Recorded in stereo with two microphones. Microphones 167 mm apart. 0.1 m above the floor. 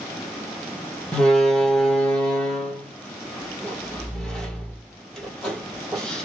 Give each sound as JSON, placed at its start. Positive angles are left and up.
{"t": 1.1, "sound": "a door slam", "side_deg": 5, "distance_m": 2.0}